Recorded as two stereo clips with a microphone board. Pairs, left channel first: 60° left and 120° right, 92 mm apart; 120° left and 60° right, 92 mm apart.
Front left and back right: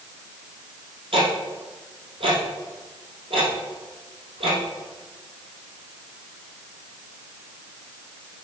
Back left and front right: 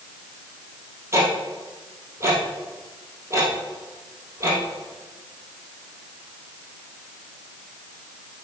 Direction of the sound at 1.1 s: 120° right.